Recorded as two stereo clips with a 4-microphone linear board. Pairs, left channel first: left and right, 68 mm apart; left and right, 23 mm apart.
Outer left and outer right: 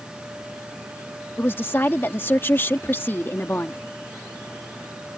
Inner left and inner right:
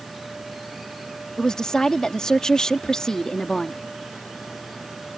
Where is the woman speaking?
35° left (ahead or behind).